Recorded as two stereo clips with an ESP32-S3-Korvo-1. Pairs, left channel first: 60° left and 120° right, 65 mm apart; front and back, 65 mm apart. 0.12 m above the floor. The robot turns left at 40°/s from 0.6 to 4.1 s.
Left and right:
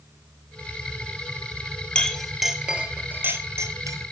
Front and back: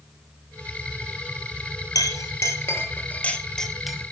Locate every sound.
1.9 s a clink: 15° right, 1.9 m; by 4.0 s 95° right, 1.9 m